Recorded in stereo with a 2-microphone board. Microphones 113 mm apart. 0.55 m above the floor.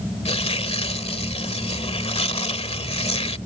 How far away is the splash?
No splash in this recording.